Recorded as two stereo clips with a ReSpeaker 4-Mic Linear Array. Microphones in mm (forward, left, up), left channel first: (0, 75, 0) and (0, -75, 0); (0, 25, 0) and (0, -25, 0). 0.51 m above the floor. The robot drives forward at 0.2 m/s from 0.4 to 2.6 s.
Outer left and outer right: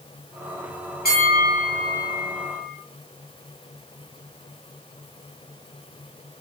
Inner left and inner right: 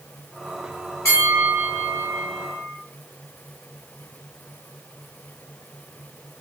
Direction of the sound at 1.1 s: 85° left.